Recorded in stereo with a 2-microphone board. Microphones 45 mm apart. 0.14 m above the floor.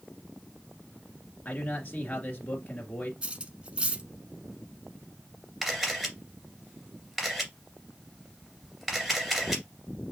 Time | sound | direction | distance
1.4 | a man speaking | 40° left (ahead or behind) | 1.9 m
3.2 | cutlery clinking | 25° right (ahead or behind) | 0.7 m
5.6 | a camera shutter | 5° right (ahead or behind) | 2 m